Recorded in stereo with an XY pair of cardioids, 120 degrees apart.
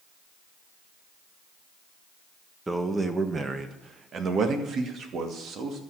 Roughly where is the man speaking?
Ahead.